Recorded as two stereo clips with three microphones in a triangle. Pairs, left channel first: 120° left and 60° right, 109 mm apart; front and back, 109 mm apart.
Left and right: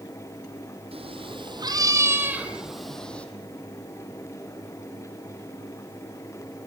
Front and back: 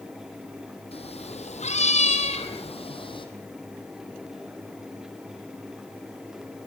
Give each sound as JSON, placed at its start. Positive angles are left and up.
{"t": 0.9, "sound": "a cat meowing", "azimuth_deg": -30, "distance_m": 3.0}